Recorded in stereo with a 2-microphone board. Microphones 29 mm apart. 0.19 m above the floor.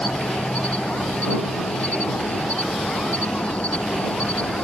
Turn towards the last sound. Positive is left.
turn(degrees=45)  # may be behind; listen again after turning